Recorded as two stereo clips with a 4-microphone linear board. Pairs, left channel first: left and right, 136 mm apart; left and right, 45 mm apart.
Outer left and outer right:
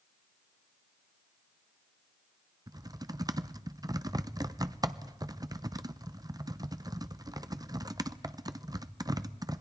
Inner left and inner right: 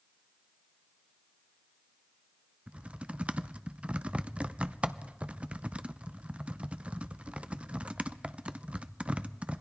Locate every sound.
2.7 s typing on a keyboard: 30° right (ahead or behind), 0.6 m